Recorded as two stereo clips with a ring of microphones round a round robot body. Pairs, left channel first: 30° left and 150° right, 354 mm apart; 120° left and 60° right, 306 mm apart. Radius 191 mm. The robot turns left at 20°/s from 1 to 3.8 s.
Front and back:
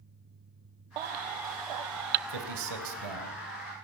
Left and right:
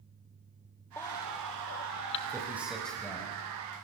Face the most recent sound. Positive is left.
turn(degrees=-170)